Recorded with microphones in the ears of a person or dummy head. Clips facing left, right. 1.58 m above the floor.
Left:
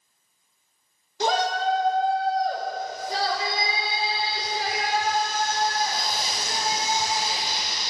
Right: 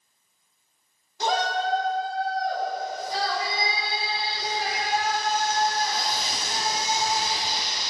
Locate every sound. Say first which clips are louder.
1.2 s a shout: left 2 dB; 55° left (ahead or behind), 2.5 m; by 7.9 s 60° left (ahead or behind), 10 m